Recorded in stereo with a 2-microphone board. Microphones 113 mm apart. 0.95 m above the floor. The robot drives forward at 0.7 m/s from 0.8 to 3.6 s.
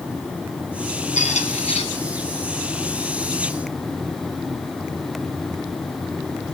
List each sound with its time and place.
1.2 s a squeak: 85° left, 1.0 m; by 1.9 s 65° left (ahead or behind), 1.1 m